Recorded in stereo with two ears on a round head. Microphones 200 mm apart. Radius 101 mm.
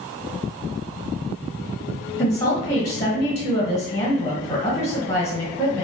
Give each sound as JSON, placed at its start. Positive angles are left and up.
{"t": 2.2, "sound": "a woman speaking", "side_deg": 25, "distance_m": 1.1}